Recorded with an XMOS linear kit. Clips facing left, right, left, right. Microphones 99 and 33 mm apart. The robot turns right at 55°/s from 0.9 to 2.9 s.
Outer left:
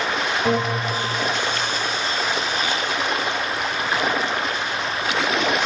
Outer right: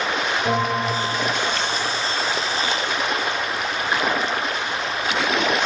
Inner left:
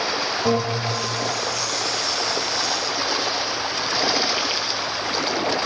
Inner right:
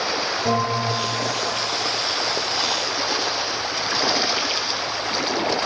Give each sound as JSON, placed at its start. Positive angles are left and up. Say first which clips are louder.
{"t": 0.5, "sound": "a bell", "louder": "even, inner right 1 dB", "side_deg": 25, "distance_m": 8.0}